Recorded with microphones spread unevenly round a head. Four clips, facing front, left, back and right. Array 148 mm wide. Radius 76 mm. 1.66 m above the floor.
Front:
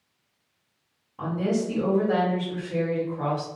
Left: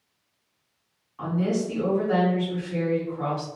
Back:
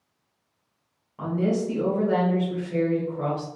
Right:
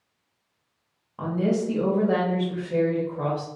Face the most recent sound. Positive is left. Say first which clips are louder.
# right 1 dB, back 1 dB
turn(degrees=-100)